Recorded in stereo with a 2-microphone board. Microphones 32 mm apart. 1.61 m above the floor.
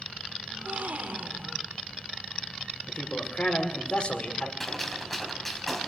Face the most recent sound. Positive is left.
turn(degrees=5)  # may be behind; listen again after turning